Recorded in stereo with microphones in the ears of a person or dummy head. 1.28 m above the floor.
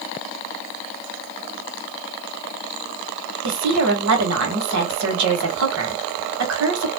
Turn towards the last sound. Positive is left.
turn(degrees=-70)  # may be behind; listen again after turning